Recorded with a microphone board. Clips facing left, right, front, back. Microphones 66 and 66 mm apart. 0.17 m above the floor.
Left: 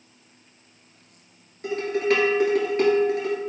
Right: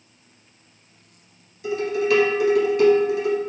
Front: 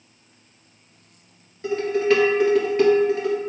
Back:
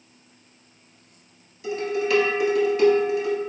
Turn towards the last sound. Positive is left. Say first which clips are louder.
# right 1 dB, front 5 dB
turn(degrees=45)